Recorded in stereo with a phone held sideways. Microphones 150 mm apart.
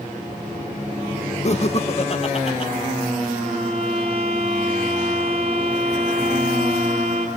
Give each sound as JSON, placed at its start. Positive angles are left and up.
{"t": 1.4, "sound": "laughter", "side_deg": 45, "distance_m": 0.8}
{"t": 3.4, "sound": "a violin", "side_deg": -40, "distance_m": 6.0}